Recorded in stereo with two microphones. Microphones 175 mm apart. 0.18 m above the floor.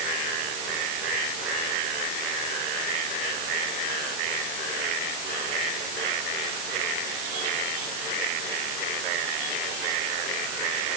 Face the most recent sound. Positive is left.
No sound to turn to.